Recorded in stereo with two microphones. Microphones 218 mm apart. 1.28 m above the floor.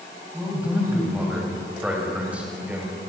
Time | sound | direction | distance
0.3 | a man speaking | 5° right (ahead or behind) | 9.5 m